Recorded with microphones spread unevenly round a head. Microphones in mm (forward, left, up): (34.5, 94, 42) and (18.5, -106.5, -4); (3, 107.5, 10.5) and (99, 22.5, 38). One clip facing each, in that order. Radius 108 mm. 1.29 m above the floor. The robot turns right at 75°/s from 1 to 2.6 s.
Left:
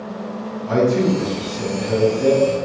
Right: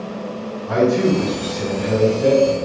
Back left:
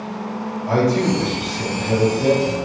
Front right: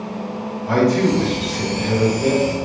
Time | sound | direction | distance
0.7 | a man speaking | 85° left | 1.6 m